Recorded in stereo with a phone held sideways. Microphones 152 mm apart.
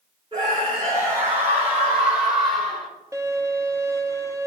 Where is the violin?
20° right (ahead or behind), 0.6 m.